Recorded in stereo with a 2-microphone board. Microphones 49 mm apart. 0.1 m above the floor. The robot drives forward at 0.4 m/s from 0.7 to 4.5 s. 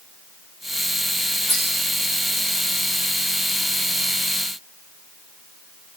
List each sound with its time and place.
1.5 s cutlery clinking: 35° left (ahead or behind), 6 m